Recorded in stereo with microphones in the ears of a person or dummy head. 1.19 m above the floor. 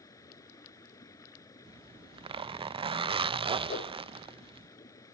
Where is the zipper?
25° right (ahead or behind).